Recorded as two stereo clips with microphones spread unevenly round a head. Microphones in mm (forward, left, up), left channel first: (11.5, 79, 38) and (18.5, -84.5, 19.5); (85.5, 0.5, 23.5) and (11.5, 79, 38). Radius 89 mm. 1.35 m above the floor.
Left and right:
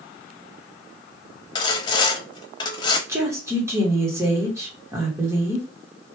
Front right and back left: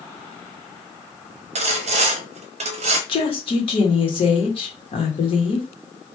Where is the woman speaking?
15° right, 1.6 m.